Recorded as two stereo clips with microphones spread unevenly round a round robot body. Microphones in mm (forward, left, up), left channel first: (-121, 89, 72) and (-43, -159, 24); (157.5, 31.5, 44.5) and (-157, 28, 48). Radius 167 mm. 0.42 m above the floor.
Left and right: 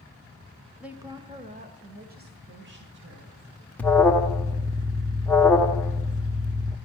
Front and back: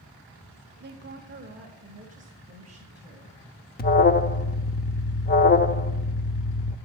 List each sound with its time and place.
0.8 s a woman speaking: 145° right, 1.0 m; by 3.4 s 110° right, 2.5 m
3.8 s an alarm: 10° left, 0.7 m